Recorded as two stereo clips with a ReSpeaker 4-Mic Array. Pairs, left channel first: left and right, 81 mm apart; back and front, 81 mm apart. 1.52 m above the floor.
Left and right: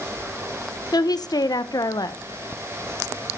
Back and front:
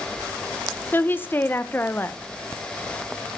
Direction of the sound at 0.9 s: 115° left.